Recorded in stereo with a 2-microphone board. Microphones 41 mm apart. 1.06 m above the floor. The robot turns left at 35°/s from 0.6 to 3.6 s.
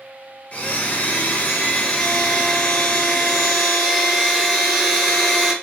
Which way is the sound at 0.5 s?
110° left.